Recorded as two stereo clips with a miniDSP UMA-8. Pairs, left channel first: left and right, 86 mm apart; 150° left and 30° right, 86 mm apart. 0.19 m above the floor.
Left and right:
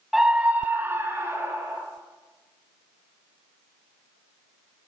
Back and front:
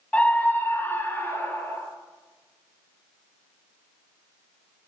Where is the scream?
170° right, 1.0 m; by 1.8 s 145° right, 3 m.